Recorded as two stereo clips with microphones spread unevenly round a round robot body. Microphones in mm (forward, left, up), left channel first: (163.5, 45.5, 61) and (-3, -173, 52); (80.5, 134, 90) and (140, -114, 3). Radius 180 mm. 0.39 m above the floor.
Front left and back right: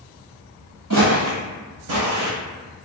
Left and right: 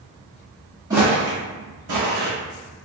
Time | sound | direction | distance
0.9 | footsteps | 170° right | 0.6 m